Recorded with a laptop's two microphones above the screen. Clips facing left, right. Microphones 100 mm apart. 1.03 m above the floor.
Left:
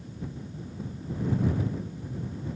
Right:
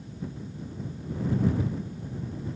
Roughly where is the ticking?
I don't hear ticking.